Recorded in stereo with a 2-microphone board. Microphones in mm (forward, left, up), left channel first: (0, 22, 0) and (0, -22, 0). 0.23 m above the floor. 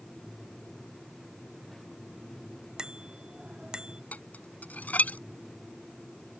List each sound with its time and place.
2.8 s a bicycle bell: 20° right (ahead or behind)
4.1 s dishes clattering: 40° left (ahead or behind)